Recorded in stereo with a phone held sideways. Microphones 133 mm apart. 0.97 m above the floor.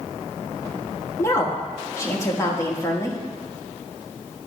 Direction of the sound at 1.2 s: 20° left (ahead or behind).